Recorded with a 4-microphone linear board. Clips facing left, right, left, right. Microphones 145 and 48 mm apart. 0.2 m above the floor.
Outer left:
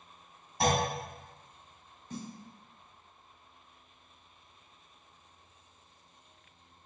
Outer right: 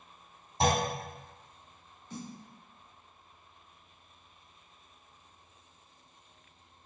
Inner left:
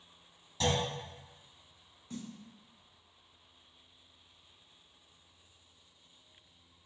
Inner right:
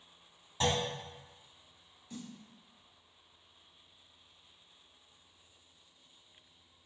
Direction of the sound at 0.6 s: 25° right (ahead or behind).